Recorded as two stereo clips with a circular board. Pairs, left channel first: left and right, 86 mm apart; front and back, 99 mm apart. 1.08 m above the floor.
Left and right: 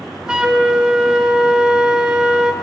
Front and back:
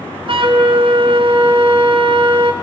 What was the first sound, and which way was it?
A flute, 170° right.